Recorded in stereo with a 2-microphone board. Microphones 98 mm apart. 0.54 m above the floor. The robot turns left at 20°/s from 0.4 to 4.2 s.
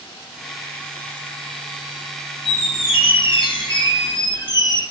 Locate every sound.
2.5 s a squeak: 80° left, 1.4 m; by 4.8 s 45° left, 1.4 m